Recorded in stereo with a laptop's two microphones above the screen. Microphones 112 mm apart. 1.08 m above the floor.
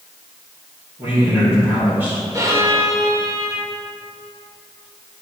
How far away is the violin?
About 0.7 m.